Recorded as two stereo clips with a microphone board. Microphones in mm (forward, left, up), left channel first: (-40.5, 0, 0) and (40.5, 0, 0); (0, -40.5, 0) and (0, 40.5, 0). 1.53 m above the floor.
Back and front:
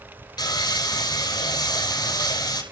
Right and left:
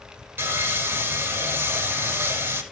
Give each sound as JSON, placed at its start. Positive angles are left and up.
{"t": 0.4, "sound": "sawing", "azimuth_deg": 150, "distance_m": 7.0}